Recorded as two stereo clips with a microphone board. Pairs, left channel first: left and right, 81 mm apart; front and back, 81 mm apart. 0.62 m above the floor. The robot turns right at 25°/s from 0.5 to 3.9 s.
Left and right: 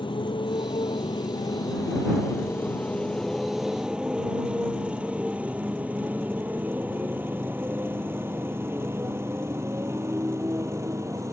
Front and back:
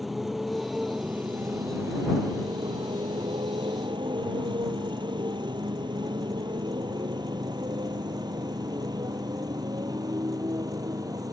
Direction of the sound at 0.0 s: 90° left.